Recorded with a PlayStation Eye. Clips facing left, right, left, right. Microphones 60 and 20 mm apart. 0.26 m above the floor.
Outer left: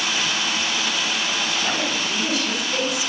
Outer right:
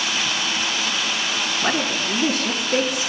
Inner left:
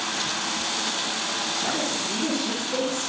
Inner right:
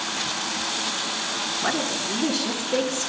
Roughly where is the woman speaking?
Right.